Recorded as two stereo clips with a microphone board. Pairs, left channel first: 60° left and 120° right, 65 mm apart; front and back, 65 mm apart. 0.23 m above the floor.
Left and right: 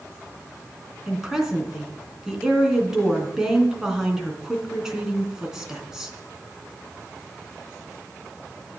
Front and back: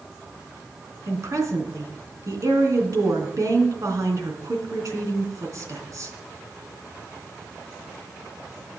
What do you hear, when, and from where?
1.1 s a woman speaking: 160° left, 3 m